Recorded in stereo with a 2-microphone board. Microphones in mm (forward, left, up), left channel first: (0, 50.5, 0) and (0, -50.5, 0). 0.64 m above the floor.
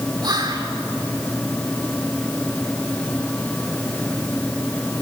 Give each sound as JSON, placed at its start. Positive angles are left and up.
{"t": 0.2, "sound": "whispering", "side_deg": -40, "distance_m": 1.7}